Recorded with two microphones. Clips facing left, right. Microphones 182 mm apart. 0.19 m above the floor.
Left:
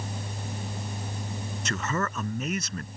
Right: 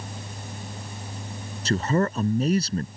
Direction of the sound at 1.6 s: 35° right (ahead or behind).